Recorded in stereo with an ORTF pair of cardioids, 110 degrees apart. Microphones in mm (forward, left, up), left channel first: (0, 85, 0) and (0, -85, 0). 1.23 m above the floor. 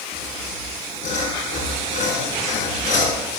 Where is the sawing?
55° left, 5.5 m.